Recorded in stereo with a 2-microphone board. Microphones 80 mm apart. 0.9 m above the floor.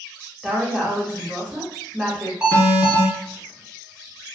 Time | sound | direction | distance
0.4 | a woman speaking | 5° left (ahead or behind) | 1.2 m
2.4 | an alarm | 10° right (ahead or behind) | 1.6 m